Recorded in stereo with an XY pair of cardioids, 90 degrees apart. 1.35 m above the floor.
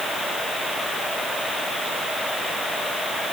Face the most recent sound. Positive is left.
No sound to turn to.